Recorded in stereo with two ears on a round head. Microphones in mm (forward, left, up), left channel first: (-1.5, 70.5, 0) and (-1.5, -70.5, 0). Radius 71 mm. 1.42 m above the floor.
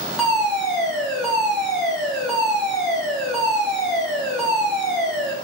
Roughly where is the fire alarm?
Centre.